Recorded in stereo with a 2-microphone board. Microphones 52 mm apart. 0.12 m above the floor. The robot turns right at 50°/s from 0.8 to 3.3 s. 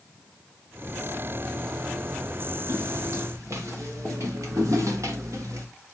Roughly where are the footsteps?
Right.